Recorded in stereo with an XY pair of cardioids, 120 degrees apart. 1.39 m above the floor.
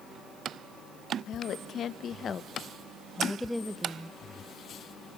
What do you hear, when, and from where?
1.3 s a woman speaking: 60° left, 1.5 m; by 4.1 s 20° right, 0.9 m